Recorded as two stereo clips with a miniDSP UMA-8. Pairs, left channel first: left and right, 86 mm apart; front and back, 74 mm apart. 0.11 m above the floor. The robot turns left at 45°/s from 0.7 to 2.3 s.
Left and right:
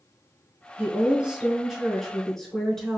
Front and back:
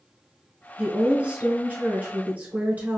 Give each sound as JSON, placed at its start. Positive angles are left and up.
{"t": 0.8, "sound": "a woman speaking", "azimuth_deg": -125, "distance_m": 1.2}